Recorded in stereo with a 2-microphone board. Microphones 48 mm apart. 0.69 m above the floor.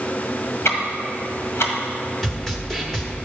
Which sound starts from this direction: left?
Ticking, at 0.7 s.